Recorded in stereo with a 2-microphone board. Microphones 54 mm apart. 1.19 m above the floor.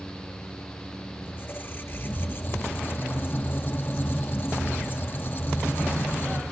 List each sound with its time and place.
1.2 s a squeak: 40° left (ahead or behind), 0.7 m